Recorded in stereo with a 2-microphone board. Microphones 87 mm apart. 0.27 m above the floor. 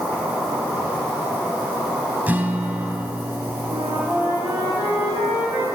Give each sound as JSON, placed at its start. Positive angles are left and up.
{"t": 0.0, "sound": "an insect", "side_deg": -25, "distance_m": 4.0}
{"t": 2.3, "sound": "a guitar", "side_deg": -20, "distance_m": 0.6}
{"t": 3.7, "sound": "a flute", "side_deg": -55, "distance_m": 4.0}